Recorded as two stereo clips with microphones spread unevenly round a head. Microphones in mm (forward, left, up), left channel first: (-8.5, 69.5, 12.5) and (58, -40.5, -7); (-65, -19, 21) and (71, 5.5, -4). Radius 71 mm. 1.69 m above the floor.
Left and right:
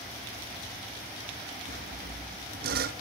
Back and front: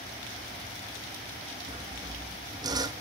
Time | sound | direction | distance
1.7 | sawing | 55° right | 1.1 m